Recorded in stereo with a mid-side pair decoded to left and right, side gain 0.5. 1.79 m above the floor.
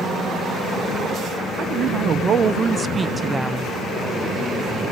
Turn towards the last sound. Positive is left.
turn(degrees=0)